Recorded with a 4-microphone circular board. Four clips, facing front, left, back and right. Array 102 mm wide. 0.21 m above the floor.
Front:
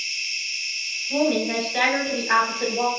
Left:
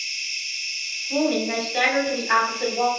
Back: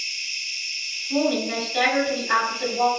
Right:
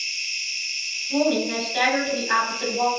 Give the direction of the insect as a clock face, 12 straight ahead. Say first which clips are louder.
Right 1 dB, front 2 dB; 12 o'clock.